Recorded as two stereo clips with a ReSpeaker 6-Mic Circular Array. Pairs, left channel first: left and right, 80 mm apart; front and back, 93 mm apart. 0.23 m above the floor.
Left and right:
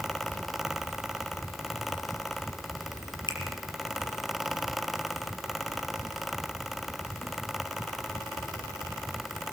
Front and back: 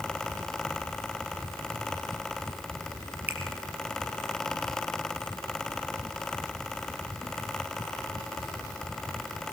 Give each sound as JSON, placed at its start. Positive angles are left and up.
{"t": 3.3, "sound": "a finger snap", "azimuth_deg": 105, "distance_m": 4.5}